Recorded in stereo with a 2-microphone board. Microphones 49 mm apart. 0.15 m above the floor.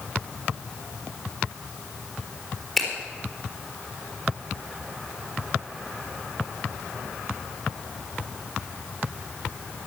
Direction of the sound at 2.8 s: Centre (ahead or behind).